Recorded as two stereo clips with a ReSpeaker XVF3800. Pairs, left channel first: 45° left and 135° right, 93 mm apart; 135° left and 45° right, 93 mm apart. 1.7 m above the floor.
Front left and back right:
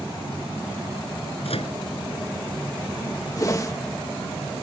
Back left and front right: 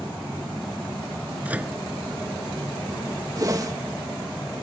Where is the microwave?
30° left.